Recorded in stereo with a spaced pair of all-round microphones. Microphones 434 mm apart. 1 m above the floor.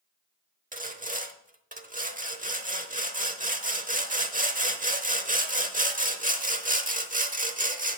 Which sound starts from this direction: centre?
Sawing, at 0.7 s.